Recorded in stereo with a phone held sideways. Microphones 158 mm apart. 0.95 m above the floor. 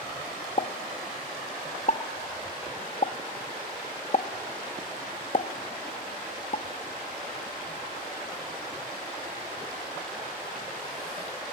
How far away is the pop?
About 0.6 m.